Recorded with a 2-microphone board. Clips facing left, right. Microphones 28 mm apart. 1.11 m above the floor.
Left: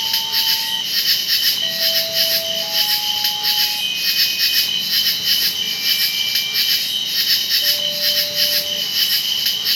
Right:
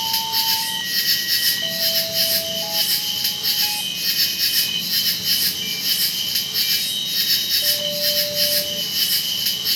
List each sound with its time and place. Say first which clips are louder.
0.0 s an insect: left 3 dB; 30° left (ahead or behind), 0.8 m